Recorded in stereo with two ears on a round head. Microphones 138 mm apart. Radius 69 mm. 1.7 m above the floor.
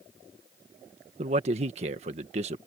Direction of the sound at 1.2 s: 45° right (ahead or behind).